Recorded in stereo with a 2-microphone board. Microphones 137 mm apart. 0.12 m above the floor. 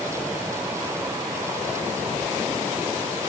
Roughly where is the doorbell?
I don't hear a doorbell.